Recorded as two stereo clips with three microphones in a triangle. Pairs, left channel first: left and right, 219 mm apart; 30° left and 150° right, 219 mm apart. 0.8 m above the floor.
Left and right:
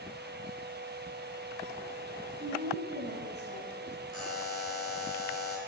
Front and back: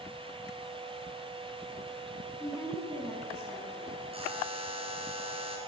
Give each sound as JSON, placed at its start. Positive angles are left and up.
{"t": 2.4, "sound": "a woman speaking", "azimuth_deg": -50, "distance_m": 7.0}
{"t": 4.1, "sound": "a buzzer", "azimuth_deg": -85, "distance_m": 2.5}